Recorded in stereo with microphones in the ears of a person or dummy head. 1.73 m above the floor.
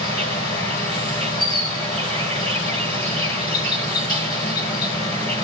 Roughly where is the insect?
Left.